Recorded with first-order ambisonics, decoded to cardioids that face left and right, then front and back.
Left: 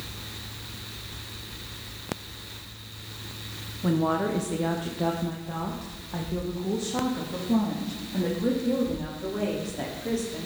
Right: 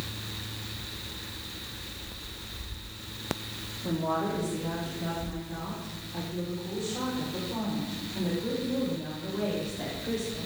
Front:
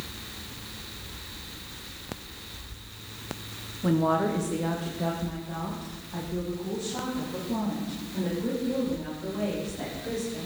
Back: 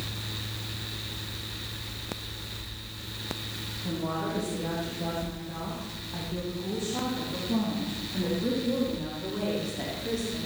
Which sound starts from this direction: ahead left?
A woman speaking, at 3.8 s.